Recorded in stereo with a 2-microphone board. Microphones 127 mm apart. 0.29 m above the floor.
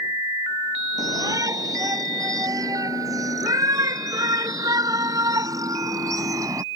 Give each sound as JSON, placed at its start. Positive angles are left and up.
{"t": 1.0, "sound": "a shout", "side_deg": -30}